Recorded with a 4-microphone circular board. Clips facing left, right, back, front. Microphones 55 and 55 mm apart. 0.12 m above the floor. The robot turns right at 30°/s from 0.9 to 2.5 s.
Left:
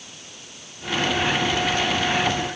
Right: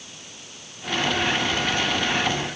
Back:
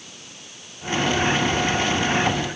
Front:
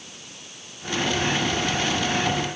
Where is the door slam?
I don't hear a door slam.